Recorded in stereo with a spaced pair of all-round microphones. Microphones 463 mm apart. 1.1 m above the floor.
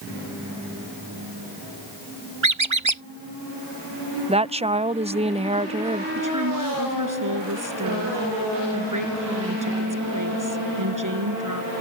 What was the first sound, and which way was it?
A squeak, 80° right.